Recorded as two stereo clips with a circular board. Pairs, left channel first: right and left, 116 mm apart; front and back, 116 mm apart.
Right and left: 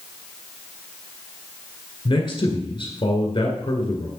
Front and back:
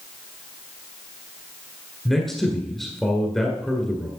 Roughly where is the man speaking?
Right.